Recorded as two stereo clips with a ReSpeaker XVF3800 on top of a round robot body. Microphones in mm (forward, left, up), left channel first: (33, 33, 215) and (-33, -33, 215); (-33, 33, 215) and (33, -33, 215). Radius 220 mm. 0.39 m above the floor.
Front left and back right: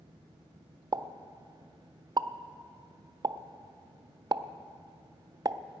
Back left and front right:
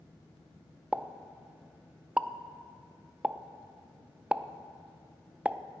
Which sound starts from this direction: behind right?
A pop, at 0.9 s.